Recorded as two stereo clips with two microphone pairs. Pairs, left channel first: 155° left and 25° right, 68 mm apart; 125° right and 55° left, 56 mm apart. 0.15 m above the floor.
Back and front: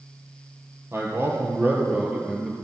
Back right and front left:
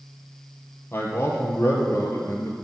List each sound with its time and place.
0.9 s a man speaking: 80° right, 3 m; by 2.6 s 105° right, 2.5 m